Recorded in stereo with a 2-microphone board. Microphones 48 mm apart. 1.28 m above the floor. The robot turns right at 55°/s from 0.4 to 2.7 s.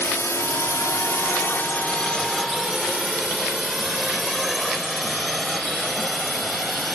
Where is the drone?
70° left (ahead or behind); by 7.0 s 5° left (ahead or behind).